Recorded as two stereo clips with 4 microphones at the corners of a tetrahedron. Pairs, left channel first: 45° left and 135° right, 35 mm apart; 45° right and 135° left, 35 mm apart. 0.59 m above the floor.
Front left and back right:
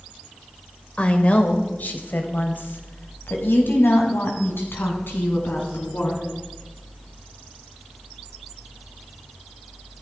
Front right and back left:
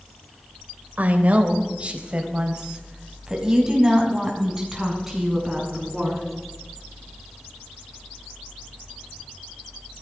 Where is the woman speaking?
100° left, 2.5 m; by 6.2 s 50° left, 7 m.